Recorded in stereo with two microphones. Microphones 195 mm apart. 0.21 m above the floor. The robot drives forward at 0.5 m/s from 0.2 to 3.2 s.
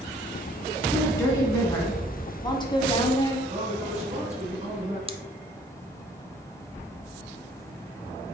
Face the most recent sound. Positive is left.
turn(degrees=-30)  # may be behind; listen again after turning